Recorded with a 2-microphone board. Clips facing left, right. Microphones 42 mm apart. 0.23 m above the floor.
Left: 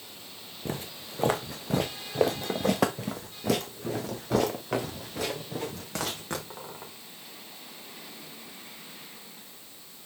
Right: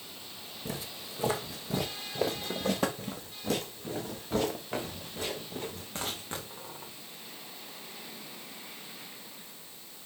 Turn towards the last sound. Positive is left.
turn(degrees=80)